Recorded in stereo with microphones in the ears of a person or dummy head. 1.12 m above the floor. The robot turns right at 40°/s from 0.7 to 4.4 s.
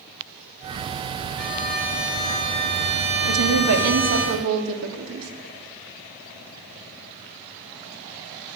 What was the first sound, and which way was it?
A violin, 170° left.